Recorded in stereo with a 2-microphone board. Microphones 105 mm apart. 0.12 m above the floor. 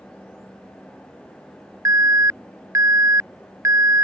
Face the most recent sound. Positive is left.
turn(degrees=-30)  # may be behind; listen again after turning